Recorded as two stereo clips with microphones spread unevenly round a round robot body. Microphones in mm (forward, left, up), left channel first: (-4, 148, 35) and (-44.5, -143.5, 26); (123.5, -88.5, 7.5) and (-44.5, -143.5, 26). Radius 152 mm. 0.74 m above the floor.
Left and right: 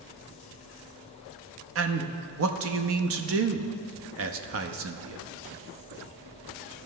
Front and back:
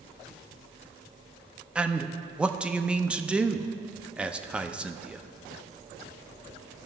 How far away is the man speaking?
About 0.7 m.